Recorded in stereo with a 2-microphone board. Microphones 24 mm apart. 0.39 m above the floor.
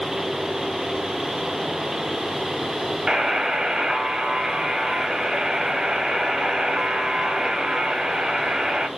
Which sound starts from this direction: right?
A buzzer, at 3.1 s.